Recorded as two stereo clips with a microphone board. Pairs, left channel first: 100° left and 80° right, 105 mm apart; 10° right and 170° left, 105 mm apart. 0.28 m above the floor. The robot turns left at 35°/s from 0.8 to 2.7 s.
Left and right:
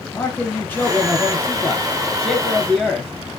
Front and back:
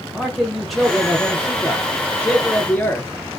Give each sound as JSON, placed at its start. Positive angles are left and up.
{"t": 0.1, "sound": "a man speaking", "azimuth_deg": 75, "distance_m": 0.9}